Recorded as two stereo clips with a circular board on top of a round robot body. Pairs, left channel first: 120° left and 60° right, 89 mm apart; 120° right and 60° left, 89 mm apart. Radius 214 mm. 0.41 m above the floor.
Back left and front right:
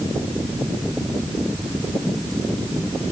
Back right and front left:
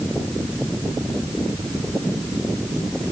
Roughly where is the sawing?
I don't hear sawing.